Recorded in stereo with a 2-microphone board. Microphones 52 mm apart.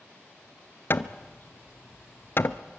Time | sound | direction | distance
0.9 | hammering | 50° left (ahead or behind) | 0.9 m